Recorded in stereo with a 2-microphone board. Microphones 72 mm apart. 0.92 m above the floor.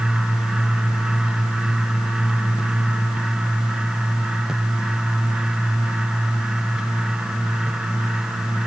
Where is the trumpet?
No trumpet in this recording.